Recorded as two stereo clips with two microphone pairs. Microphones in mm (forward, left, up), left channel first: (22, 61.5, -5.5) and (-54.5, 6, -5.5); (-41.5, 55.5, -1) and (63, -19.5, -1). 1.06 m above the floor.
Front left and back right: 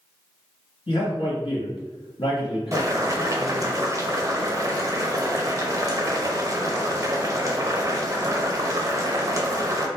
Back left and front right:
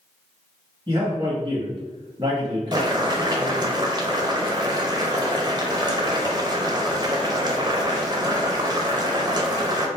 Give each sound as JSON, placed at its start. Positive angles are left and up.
{"t": 0.9, "sound": "a man speaking", "azimuth_deg": 25, "distance_m": 0.9}
{"t": 2.7, "sound": "boiling", "azimuth_deg": -90, "distance_m": 0.5}